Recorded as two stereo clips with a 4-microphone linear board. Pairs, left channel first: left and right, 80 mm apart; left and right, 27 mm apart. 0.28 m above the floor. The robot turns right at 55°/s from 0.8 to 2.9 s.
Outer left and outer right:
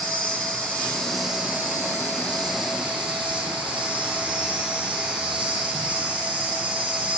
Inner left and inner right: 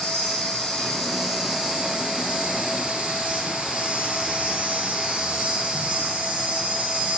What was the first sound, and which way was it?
An insect, 160° left.